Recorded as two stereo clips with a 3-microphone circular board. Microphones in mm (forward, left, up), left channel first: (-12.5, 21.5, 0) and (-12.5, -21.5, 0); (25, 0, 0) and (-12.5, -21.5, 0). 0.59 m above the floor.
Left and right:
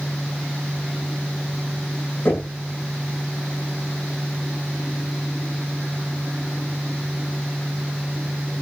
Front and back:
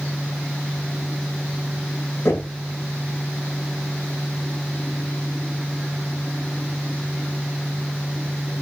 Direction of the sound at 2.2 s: 55° left.